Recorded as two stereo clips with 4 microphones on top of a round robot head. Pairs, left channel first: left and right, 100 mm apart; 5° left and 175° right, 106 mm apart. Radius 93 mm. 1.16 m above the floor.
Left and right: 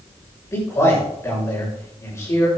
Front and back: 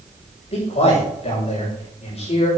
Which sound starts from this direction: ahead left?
A man speaking, at 0.5 s.